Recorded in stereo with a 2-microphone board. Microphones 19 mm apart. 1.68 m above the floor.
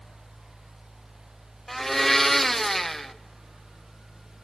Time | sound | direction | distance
1.7 | a blender | 10° left (ahead or behind) | 0.9 m